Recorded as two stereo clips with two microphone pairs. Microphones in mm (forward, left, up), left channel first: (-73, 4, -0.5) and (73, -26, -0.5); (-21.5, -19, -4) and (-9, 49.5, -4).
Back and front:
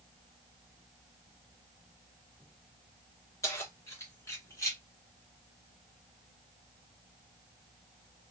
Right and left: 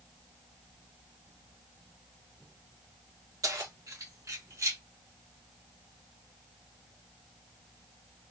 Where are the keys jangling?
100° left, 2 m; by 4.8 s 105° left, 1.6 m.